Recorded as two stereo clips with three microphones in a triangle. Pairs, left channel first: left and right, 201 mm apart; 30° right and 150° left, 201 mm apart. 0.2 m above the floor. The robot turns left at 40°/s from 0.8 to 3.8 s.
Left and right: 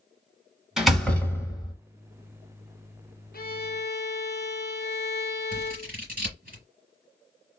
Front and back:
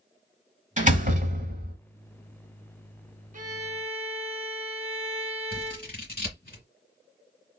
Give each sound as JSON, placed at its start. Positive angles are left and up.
{"t": 0.8, "sound": "a door slam", "azimuth_deg": -175, "distance_m": 1.2}
{"t": 3.3, "sound": "a violin", "azimuth_deg": 115, "distance_m": 0.6}
{"t": 5.5, "sound": "scissors", "azimuth_deg": -55, "distance_m": 2.5}